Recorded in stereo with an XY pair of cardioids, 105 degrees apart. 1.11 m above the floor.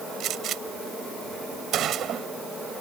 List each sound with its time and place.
0.2 s a gunshot: 65° right